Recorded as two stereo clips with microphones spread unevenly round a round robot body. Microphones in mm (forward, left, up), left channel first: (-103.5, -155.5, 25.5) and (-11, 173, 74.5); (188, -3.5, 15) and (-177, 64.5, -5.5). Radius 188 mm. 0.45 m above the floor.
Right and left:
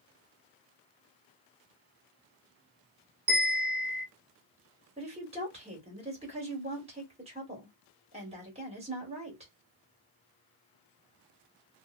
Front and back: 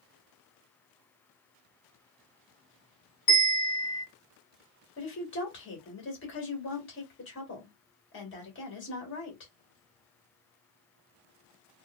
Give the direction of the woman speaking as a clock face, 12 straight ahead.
12 o'clock.